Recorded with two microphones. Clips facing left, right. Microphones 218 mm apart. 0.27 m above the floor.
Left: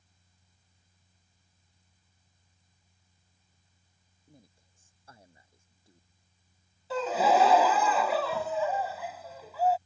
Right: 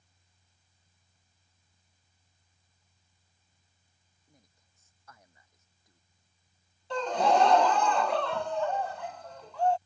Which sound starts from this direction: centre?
A gasp, at 6.9 s.